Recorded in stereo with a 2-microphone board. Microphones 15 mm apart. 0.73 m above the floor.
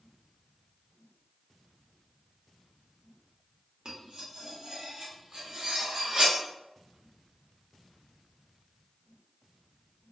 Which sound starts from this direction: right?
Cutlery clinking, at 3.9 s.